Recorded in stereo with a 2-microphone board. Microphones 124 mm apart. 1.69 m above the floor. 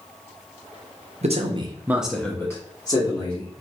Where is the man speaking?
65° right (ahead or behind), 0.6 m; by 3.5 s 40° left (ahead or behind), 1.2 m.